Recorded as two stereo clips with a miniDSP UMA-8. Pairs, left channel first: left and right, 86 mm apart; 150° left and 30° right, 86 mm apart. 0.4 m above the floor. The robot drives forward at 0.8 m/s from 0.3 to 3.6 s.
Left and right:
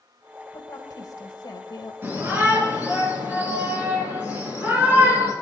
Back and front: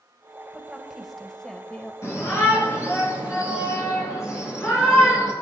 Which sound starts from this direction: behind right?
A shout, at 2.0 s.